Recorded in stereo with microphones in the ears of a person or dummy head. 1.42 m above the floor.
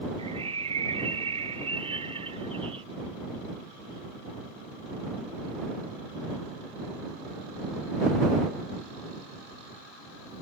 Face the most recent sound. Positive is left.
turn(degrees=-30)  # may be behind; listen again after turning